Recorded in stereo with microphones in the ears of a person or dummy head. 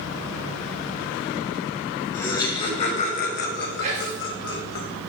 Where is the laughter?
15° left (ahead or behind), 2 m; by 4.8 s 75° left (ahead or behind), 2 m.